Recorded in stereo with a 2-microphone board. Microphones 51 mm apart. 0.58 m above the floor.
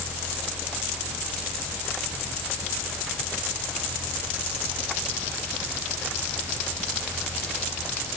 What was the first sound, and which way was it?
Only background noise.